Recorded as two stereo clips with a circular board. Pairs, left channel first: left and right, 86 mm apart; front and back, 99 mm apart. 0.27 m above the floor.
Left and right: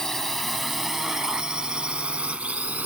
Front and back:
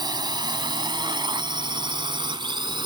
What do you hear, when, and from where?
0.0 s a drone: 175° left; by 2.9 s 160° right